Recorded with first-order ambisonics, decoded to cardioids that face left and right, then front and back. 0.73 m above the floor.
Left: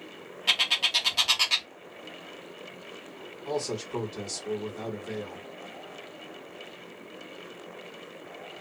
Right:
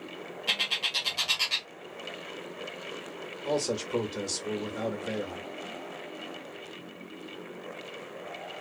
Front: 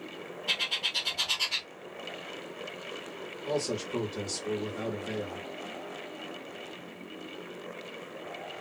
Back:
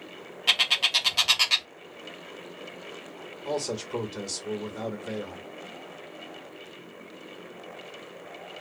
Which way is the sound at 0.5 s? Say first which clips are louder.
Left 4 dB, back 7 dB; 160° left.